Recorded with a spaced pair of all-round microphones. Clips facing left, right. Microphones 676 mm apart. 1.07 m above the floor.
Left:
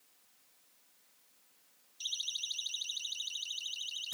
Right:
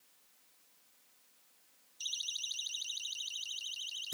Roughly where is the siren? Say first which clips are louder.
Left 1 dB; left.